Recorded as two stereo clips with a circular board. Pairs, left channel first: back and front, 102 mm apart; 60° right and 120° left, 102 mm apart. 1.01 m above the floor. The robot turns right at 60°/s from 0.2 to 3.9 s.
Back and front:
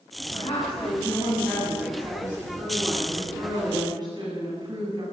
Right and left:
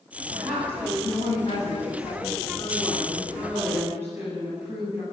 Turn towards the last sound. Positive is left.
turn(degrees=50)